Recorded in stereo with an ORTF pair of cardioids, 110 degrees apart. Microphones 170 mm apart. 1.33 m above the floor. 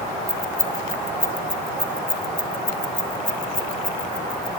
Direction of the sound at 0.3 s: 5° left.